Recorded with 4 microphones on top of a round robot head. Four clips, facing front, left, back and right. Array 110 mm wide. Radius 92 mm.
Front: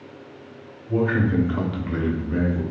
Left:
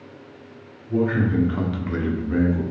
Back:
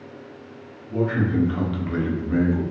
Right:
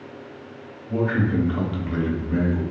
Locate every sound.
0.9 s a man speaking: 10° right, 1.0 m; by 2.6 s 135° left, 1.0 m